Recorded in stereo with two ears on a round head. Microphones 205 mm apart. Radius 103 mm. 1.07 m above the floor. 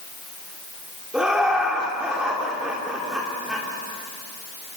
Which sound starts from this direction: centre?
Laughter, at 1.1 s.